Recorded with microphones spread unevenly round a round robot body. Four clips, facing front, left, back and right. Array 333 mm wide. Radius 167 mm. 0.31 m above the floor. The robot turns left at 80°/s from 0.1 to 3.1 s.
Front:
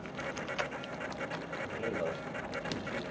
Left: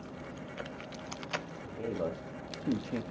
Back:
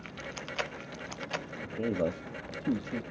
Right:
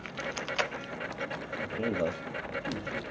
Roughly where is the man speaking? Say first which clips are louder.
Right 6 dB, back 5 dB; behind right.